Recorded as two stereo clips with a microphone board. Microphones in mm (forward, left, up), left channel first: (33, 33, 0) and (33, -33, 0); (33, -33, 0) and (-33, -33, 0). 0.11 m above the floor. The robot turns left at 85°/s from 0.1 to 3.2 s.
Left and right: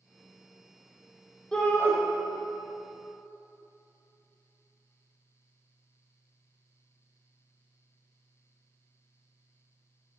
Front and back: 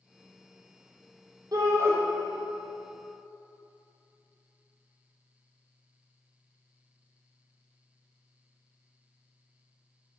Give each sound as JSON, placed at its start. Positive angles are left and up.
{"t": 1.5, "sound": "a shout", "azimuth_deg": 170, "distance_m": 4.0}